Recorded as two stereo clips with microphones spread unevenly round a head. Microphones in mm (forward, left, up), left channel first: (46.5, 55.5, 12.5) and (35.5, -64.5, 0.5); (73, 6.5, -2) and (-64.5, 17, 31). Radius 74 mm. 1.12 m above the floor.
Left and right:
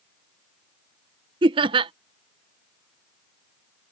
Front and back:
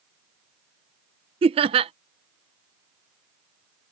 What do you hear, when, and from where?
1.4 s laughter: 130° right